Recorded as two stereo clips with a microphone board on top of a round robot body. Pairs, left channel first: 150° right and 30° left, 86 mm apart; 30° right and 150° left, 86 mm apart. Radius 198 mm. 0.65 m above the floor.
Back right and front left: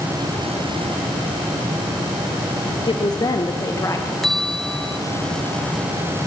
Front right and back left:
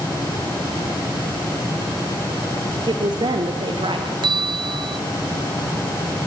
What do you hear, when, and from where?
2.9 s a woman speaking: straight behind, 2 m; by 4.1 s 155° left, 2.5 m
4.2 s a bell: 120° left, 0.6 m